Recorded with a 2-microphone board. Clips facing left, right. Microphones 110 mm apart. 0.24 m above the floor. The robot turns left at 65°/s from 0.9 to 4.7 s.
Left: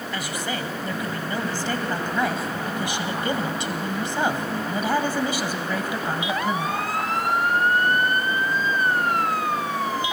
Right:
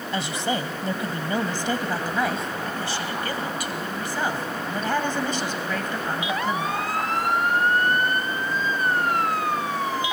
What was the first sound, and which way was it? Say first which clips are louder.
A woman speaking: right 4 dB; 30° right (ahead or behind).